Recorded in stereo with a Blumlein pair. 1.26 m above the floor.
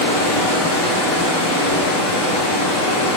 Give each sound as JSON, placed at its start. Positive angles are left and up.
{"t": 0.0, "sound": "running water", "azimuth_deg": 35, "distance_m": 2.0}